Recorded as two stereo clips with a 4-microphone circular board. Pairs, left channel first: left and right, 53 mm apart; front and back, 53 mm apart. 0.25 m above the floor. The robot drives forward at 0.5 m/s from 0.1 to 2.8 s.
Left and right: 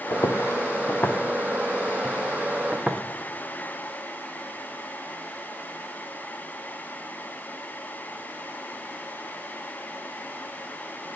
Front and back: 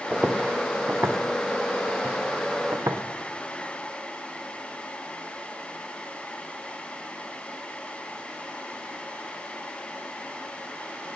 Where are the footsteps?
110° left, 1.5 m; by 3.0 s 170° right, 1.7 m.